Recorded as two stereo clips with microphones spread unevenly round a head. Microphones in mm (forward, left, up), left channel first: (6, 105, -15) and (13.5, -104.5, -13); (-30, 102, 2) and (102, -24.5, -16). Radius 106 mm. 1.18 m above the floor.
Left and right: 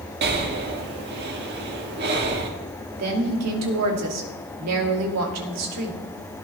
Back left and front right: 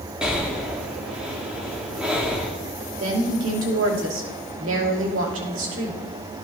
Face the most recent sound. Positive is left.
turn(degrees=-80)